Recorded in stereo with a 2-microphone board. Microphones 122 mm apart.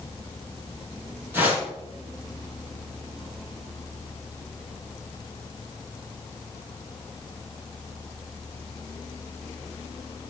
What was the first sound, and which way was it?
A whoosh, 15° right (ahead or behind).